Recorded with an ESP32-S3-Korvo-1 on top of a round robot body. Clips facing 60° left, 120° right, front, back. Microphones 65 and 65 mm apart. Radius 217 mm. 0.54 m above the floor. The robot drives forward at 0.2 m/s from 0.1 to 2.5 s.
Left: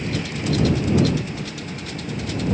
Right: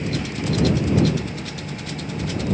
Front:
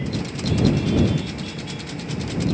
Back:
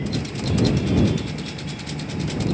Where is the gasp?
I don't hear a gasp.